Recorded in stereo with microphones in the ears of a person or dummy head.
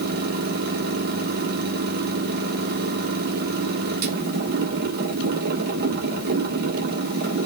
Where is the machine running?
50° right (ahead or behind), 2.5 m.